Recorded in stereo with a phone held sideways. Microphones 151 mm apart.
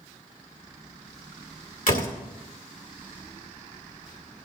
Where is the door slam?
70° left (ahead or behind), 2 m.